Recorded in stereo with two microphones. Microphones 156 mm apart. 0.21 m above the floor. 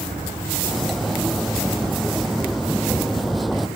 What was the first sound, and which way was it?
Cutlery clinking, centre (ahead or behind).